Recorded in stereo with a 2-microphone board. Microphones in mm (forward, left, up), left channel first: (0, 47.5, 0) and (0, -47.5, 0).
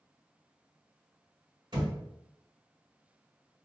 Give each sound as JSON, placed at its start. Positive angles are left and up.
{"t": 1.7, "sound": "a thud", "side_deg": -50, "distance_m": 1.8}